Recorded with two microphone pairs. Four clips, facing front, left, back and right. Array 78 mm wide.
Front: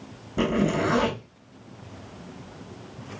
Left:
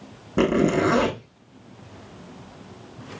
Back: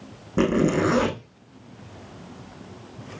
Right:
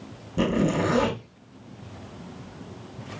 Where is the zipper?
125° left, 2.5 m.